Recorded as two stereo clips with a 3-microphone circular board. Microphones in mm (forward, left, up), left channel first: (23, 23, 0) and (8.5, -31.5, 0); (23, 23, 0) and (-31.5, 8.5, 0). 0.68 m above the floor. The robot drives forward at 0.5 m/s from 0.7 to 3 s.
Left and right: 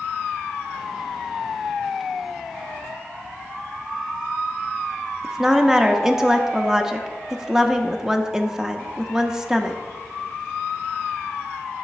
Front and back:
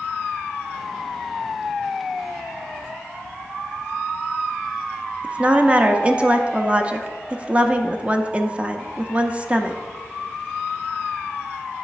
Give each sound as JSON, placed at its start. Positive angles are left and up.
{"t": 5.2, "sound": "a woman speaking", "azimuth_deg": -170, "distance_m": 0.5}